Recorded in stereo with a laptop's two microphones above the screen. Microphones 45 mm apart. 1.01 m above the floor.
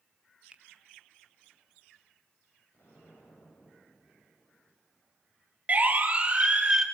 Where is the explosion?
60° left (ahead or behind), 5.5 m.